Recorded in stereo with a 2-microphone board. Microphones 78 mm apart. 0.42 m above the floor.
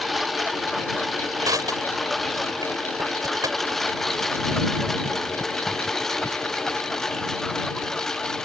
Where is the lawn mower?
Centre (ahead or behind); by 8.4 s 5° left (ahead or behind).